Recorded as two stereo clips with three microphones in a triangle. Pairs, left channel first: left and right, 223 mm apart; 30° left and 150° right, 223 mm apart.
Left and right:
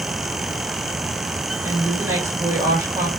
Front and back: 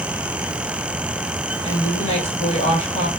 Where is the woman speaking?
20° right, 1.8 m.